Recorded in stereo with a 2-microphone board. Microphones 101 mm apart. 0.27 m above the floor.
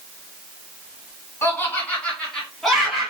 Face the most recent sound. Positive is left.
turn(degrees=-5)  # may be behind; listen again after turning